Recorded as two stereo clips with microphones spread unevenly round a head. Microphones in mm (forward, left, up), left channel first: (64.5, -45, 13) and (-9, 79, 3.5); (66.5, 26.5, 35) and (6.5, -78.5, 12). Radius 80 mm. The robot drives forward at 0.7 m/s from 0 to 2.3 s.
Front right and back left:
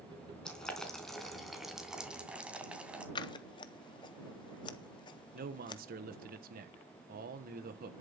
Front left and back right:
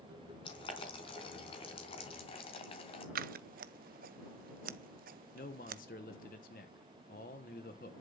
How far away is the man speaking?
About 1.2 m.